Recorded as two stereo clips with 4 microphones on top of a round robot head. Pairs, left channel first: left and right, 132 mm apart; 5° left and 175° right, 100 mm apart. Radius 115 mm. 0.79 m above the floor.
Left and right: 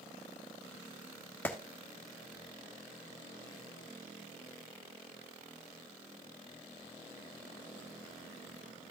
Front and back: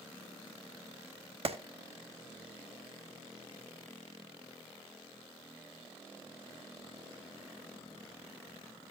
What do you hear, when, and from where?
1.4 s a clap: 165° left, 1.3 m